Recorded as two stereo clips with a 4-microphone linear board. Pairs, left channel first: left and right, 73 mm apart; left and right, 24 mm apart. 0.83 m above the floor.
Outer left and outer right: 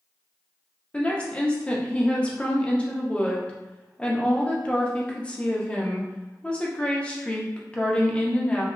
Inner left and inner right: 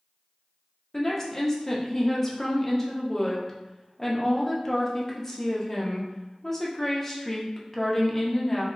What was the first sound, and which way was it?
A woman speaking, 15° left (ahead or behind).